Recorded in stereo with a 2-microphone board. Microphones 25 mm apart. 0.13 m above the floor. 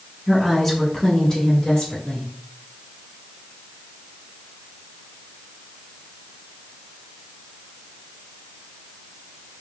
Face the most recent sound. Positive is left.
turn(degrees=45)  # may be behind; listen again after turning